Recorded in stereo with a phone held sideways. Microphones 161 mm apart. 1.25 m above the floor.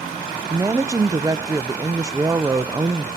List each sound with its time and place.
0.5 s a woman speaking: 20° right (ahead or behind), 0.5 m